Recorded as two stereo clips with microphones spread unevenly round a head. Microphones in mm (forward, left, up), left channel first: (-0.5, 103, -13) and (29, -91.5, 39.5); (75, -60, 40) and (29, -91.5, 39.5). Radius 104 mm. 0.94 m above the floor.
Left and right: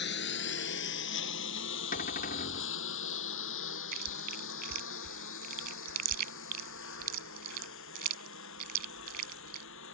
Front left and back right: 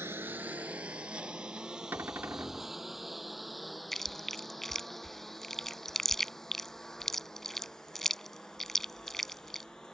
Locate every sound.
0.0 s a lawn mower: 140° left; by 9.9 s 120° left
1.9 s a cupboard door: 145° left
3.9 s chewing: 45° right